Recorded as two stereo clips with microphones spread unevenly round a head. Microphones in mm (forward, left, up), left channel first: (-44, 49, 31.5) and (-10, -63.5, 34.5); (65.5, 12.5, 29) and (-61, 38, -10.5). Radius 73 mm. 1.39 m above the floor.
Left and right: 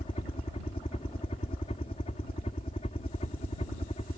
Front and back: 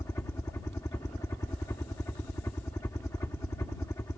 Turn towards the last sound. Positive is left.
turn(degrees=60)